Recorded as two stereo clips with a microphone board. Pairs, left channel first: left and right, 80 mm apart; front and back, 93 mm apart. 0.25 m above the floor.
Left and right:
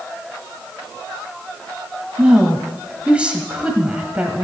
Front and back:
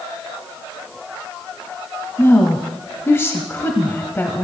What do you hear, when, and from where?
2.2 s a woman speaking: 30° right, 1.0 m